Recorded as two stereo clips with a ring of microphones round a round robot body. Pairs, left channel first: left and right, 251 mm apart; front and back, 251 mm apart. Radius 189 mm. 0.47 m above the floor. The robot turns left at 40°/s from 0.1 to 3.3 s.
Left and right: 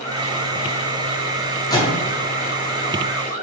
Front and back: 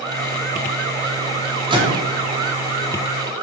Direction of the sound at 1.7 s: 140° left.